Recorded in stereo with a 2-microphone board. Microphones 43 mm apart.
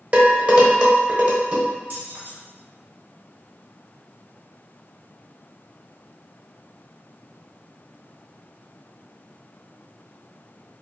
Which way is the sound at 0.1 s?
35° right (ahead or behind).